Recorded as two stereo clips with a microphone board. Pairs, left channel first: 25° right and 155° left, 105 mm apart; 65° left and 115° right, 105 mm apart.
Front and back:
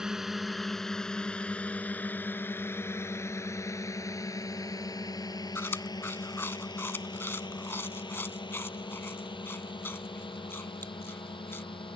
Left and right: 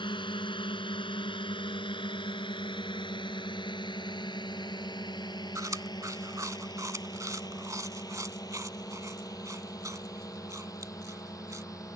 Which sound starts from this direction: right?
Chewing, at 5.5 s.